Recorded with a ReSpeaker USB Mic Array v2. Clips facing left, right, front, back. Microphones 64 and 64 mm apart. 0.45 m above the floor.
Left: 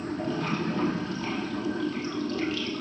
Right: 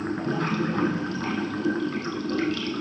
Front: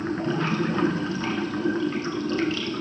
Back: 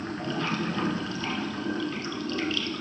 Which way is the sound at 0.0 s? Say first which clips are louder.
Right 3 dB, front 5 dB; 65° right.